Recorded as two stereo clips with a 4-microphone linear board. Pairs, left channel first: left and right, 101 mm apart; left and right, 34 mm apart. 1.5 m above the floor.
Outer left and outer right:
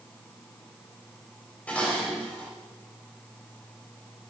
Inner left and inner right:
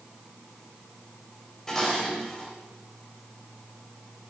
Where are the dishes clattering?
15° left (ahead or behind), 4 m.